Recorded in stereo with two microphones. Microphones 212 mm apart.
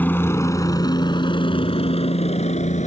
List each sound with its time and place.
0.0 s a helicopter: 10° left (ahead or behind); by 2.9 s 35° left (ahead or behind)